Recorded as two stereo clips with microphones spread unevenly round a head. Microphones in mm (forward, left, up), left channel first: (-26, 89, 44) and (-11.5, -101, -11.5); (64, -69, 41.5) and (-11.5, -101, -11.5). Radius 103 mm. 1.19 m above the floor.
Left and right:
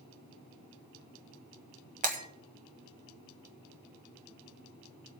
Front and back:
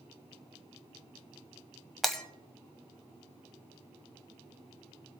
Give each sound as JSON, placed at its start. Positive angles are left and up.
{"t": 2.0, "sound": "breaking glass", "azimuth_deg": -30, "distance_m": 1.3}